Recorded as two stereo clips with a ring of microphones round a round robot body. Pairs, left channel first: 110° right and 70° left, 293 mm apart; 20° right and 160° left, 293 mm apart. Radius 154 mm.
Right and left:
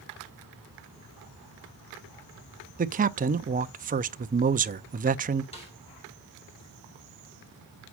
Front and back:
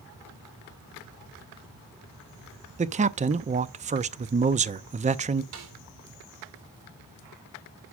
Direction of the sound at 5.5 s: Straight behind.